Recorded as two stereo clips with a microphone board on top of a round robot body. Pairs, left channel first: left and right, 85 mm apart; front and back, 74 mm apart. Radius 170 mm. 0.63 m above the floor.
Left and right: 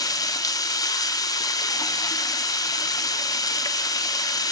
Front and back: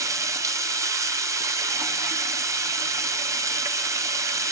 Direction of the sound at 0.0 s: 135° left.